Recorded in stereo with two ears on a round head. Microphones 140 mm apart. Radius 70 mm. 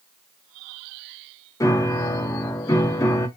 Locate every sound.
1.6 s a piano: 20° left (ahead or behind), 0.5 m